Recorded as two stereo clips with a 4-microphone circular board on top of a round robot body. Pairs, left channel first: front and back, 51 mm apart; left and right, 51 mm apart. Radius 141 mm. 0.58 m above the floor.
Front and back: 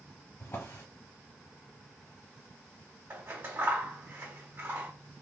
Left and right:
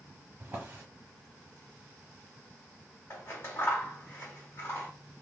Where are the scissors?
130° left, 1.8 m.